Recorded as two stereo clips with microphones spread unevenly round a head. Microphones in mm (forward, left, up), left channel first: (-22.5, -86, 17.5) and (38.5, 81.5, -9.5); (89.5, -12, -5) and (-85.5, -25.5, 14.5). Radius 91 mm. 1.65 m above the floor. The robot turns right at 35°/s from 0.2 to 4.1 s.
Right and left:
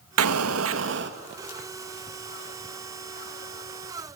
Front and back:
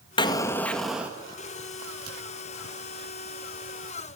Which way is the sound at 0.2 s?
75° left.